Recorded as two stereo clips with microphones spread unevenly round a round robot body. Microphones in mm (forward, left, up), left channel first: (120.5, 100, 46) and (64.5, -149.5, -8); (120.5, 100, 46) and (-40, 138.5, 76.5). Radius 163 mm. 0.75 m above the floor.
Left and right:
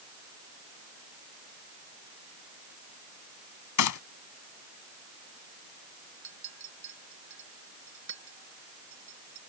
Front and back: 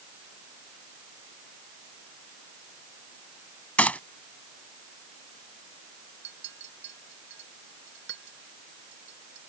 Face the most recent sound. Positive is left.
turn(degrees=-155)